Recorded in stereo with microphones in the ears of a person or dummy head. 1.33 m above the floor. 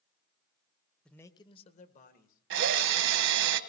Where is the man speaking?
Centre (ahead or behind), 0.8 m; by 3.5 s 60° left (ahead or behind), 3 m.